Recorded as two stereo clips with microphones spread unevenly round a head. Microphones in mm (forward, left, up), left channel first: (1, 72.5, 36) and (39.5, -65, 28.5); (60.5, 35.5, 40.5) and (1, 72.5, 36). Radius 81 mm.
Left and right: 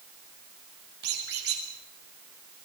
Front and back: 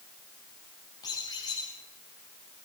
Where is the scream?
No scream in this recording.